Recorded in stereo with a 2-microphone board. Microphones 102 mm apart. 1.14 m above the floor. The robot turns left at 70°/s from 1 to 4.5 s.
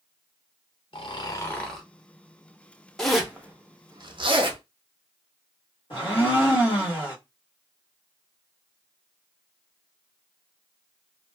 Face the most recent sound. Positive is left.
turn(degrees=55)  # may be behind; listen again after turning